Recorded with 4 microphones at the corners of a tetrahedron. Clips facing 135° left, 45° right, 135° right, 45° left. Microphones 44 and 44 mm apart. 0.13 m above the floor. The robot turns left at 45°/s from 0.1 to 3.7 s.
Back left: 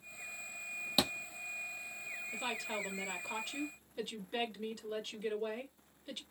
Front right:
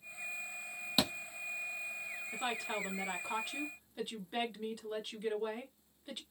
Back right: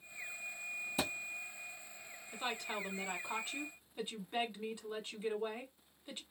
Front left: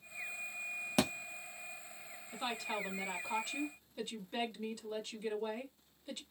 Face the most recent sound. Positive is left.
turn(degrees=-105)